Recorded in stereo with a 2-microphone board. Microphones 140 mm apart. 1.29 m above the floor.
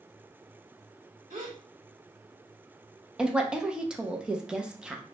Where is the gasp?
60° right (ahead or behind), 1.6 m.